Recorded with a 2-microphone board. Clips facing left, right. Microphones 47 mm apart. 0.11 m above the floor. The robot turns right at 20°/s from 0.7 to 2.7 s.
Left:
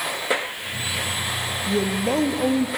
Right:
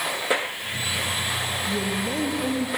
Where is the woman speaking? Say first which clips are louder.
Left 7 dB; 55° left (ahead or behind), 2.5 m; by 2.7 s 45° left (ahead or behind), 2.5 m.